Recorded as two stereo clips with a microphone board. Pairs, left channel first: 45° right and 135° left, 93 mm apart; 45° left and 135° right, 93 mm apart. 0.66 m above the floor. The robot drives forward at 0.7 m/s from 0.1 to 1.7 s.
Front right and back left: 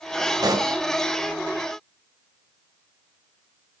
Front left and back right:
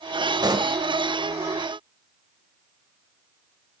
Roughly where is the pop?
Behind.